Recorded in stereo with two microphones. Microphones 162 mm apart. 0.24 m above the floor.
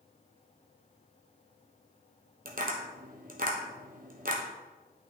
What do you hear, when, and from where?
2.5 s tapping: 60° right (ahead or behind), 1.4 m